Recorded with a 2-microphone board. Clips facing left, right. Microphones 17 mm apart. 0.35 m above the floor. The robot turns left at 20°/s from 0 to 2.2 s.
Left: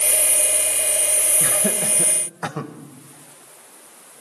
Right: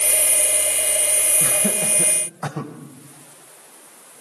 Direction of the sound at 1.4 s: 40° left (ahead or behind).